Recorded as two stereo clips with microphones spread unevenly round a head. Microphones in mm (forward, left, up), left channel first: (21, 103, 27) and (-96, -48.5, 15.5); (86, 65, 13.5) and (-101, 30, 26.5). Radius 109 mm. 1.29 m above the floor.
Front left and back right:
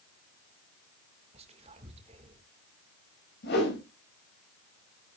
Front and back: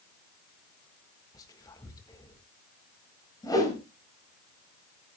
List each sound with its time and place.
1.3 s whispering: 65° right, 1.7 m
3.4 s a whoosh: 85° left, 5 m